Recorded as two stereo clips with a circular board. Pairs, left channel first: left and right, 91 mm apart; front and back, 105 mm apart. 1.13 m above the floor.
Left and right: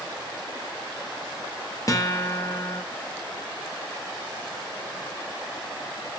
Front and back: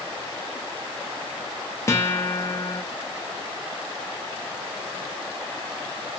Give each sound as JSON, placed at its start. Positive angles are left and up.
{"t": 1.9, "sound": "a guitar", "azimuth_deg": 55, "distance_m": 0.6}